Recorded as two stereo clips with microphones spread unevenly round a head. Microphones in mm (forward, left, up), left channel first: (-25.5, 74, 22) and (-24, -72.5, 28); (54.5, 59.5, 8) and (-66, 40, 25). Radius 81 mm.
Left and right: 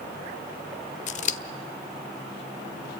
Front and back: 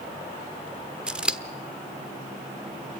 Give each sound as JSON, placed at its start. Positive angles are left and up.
{"t": 1.1, "sound": "scissors", "azimuth_deg": 115, "distance_m": 1.1}